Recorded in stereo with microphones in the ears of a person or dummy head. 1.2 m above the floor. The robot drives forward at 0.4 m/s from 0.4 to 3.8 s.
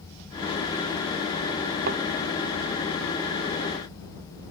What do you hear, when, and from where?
1.9 s a thud: 55° right (ahead or behind)